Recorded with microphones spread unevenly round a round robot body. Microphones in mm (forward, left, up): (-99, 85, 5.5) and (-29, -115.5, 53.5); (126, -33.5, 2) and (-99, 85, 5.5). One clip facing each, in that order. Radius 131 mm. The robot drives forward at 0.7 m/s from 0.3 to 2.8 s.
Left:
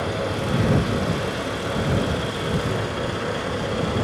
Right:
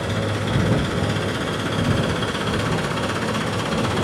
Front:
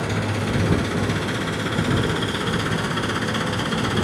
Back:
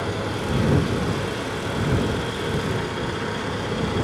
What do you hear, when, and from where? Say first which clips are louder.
0.0 s an engine running: right 1 dB, front 1 dB; 25° right, 5.5 m; by 4.0 s 35° right, 4 m